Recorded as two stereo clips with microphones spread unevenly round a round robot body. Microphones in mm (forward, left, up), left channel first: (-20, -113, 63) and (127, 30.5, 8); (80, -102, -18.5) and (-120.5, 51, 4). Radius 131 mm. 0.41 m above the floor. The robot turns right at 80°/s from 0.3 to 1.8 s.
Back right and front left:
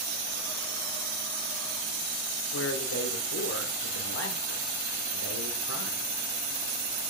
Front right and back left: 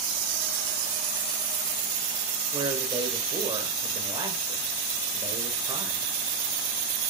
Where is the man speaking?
145° right, 1.3 m.